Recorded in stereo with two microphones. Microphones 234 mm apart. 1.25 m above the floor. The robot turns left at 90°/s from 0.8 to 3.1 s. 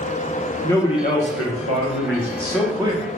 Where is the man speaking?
165° left, 0.9 m; by 3.0 s 35° right, 0.9 m.